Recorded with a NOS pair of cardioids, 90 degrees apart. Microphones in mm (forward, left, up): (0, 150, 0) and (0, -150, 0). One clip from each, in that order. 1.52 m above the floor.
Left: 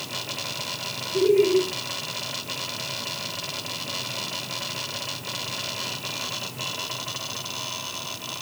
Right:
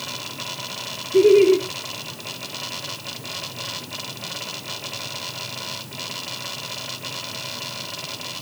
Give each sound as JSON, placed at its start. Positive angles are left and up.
{"t": 1.1, "sound": "laughter", "azimuth_deg": -60, "distance_m": 1.1}